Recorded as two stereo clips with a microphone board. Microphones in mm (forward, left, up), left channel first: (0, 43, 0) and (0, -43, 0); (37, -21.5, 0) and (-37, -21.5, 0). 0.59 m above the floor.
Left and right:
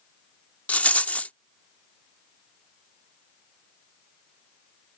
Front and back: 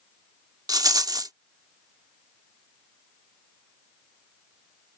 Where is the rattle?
160° left.